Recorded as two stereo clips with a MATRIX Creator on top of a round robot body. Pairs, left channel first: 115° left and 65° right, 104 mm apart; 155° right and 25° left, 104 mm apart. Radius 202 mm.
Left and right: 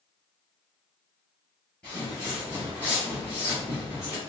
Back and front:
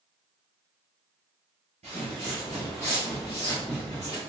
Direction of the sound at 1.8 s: 30° left.